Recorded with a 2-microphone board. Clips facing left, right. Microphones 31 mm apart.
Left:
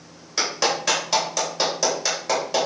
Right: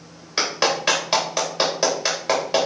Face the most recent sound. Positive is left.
turn(degrees=-30)  # may be behind; listen again after turning